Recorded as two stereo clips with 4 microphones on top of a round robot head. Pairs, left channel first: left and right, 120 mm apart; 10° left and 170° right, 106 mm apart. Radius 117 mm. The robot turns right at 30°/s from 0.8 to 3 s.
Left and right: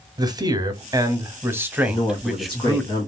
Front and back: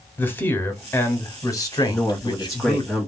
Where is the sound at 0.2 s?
50° right, 0.9 m; by 2.9 s 10° left, 0.9 m.